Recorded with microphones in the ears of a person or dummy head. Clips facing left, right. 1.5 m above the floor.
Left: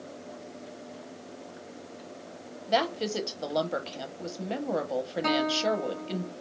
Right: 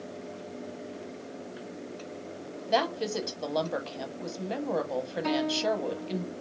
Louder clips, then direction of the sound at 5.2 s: Even; 80° left.